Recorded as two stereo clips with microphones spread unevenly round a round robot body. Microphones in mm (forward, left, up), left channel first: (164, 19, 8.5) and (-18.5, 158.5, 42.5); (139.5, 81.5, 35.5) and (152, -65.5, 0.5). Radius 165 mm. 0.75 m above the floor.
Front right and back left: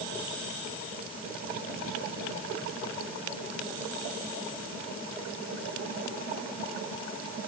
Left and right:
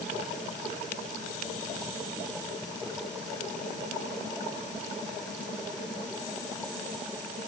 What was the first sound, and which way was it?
Only background noise.